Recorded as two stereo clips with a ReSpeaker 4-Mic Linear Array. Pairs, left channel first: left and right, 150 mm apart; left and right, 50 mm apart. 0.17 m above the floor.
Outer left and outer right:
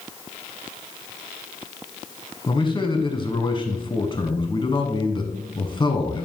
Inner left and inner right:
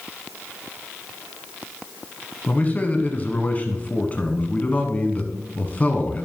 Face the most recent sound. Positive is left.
turn(degrees=30)  # may be behind; listen again after turning